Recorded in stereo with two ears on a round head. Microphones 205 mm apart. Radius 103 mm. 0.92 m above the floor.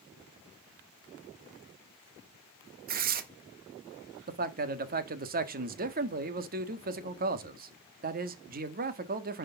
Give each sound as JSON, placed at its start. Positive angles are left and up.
{"t": 2.9, "sound": "tearing paper", "side_deg": -40, "distance_m": 1.6}
{"t": 4.3, "sound": "a man speaking", "side_deg": -40, "distance_m": 1.7}